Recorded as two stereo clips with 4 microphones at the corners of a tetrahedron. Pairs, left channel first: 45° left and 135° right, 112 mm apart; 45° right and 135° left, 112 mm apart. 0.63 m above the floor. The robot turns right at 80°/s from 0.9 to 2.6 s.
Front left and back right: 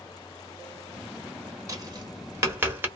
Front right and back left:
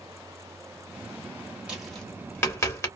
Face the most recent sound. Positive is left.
turn(degrees=-80)